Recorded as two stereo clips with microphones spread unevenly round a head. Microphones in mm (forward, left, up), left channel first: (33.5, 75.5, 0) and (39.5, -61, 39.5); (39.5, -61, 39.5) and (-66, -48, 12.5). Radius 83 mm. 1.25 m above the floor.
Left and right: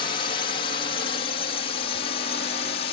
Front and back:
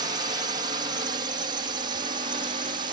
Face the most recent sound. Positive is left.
turn(degrees=130)